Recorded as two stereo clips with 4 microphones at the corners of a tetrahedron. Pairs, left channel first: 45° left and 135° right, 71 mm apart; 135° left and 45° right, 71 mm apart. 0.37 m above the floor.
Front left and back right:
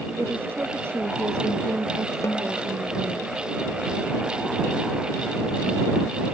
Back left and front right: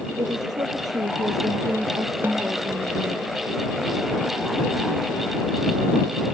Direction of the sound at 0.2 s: 70° right.